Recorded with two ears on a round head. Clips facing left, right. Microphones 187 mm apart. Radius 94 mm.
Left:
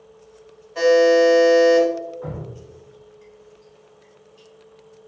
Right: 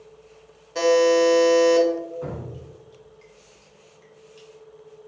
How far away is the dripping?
About 1.2 m.